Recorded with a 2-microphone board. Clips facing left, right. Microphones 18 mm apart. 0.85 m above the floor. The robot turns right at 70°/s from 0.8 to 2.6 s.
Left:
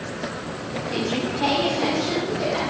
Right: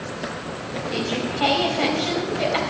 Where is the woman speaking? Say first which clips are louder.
Even; 170° right, 4 m; by 2.6 s 50° right, 4 m.